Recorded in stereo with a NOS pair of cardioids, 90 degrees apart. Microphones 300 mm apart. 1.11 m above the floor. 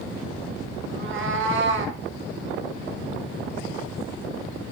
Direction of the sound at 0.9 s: 45° right.